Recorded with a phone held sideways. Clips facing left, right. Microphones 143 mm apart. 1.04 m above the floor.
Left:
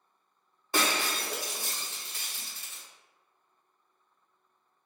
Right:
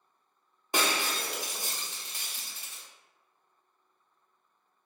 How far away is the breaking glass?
About 0.7 m.